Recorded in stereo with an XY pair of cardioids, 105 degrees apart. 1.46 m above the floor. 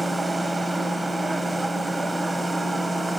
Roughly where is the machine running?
Ahead.